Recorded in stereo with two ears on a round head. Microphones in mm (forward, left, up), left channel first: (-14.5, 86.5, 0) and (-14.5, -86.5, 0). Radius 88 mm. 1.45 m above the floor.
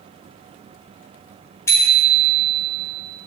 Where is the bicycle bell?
15° left (ahead or behind), 3.5 m.